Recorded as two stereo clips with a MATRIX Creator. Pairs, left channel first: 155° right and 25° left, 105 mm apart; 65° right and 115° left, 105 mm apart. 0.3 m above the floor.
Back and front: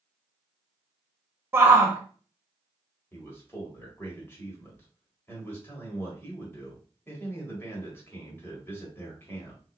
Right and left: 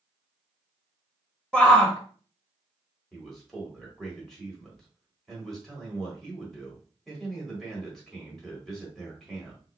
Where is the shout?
Straight ahead, 1.0 m.